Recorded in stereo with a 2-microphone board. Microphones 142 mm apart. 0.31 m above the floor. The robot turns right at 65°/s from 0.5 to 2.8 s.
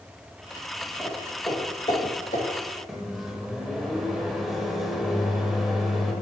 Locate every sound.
1.0 s footsteps: 10° right (ahead or behind), 3.5 m; by 2.8 s 85° left, 3.5 m
2.9 s a microwave: centre (ahead or behind), 1.2 m